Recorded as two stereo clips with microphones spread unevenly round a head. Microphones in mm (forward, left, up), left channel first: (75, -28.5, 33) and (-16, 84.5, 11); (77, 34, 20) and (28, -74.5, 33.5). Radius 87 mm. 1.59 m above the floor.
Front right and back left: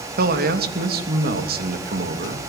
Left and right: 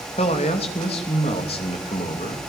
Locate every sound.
0.2 s a man speaking: 120° left, 2.5 m